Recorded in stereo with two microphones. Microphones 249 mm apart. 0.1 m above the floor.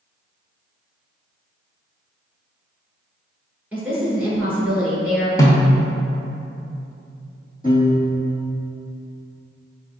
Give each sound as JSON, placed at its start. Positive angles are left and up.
{"t": 3.7, "sound": "a woman speaking", "side_deg": -5, "distance_m": 1.3}
{"t": 5.4, "sound": "a snare drum", "side_deg": 15, "distance_m": 0.7}
{"t": 7.6, "sound": "a piano", "side_deg": 35, "distance_m": 1.6}